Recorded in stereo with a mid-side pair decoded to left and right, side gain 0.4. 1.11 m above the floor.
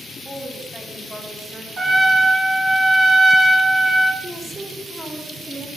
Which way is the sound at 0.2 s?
10° right.